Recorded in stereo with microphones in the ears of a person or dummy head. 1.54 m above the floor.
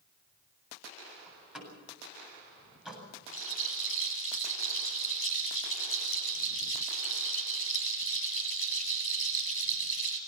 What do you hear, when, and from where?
1.3 s a door slam: 5° right (ahead or behind), 8 m
3.3 s a rattle: 45° left (ahead or behind), 7 m